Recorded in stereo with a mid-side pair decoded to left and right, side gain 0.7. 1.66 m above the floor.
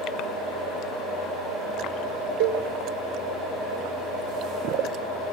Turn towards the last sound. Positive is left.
turn(degrees=-70)